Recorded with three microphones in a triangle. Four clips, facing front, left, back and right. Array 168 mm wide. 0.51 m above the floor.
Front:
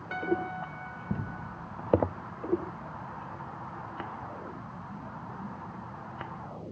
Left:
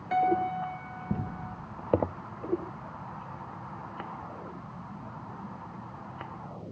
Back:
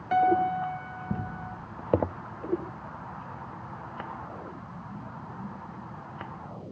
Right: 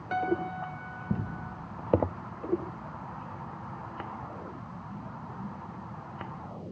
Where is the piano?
165° left, 1.8 m.